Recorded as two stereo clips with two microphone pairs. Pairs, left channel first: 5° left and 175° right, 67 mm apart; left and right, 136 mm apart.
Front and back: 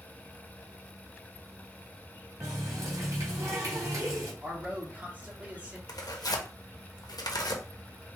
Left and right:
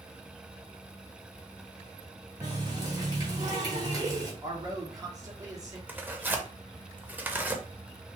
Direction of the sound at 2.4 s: 150° right.